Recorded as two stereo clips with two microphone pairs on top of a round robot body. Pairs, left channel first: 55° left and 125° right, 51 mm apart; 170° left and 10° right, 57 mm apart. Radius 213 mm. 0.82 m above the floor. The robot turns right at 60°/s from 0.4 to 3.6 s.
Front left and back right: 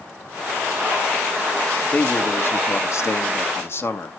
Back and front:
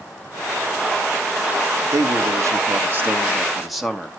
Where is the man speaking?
20° right, 2 m; by 4.1 s 85° left, 2 m.